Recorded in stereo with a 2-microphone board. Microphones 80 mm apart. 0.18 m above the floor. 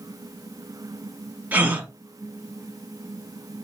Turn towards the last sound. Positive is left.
turn(degrees=-25)  # may be behind; listen again after turning